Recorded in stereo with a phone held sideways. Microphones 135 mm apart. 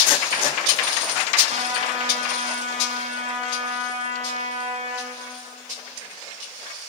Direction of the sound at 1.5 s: 55° right (ahead or behind).